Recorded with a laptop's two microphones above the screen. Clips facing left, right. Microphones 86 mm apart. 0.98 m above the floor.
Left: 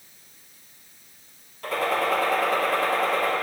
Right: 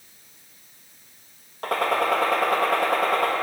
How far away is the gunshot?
About 1.4 m.